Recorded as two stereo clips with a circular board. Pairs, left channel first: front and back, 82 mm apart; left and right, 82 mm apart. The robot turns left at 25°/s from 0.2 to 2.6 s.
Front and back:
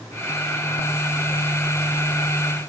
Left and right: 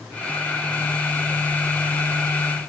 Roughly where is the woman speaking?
I don't hear a woman speaking.